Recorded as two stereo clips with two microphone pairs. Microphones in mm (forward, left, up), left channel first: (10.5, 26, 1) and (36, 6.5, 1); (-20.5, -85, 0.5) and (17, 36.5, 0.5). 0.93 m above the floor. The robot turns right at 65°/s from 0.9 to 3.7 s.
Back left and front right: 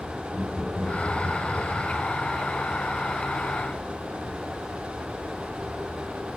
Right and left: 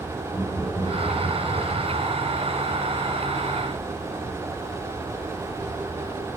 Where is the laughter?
45° right, 6 m; by 1.9 s 20° left, 6 m.